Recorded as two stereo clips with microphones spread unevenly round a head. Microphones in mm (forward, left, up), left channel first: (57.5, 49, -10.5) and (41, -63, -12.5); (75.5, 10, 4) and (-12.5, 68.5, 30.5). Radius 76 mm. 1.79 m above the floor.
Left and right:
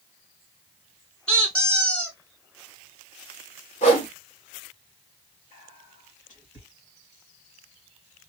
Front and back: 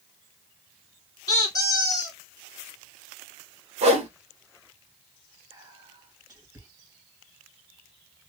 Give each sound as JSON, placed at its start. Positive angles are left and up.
{"t": 1.3, "sound": "a squeak", "azimuth_deg": 10, "distance_m": 1.9}
{"t": 3.8, "sound": "a whoosh", "azimuth_deg": 130, "distance_m": 1.5}
{"t": 5.5, "sound": "whispering", "azimuth_deg": 95, "distance_m": 2.5}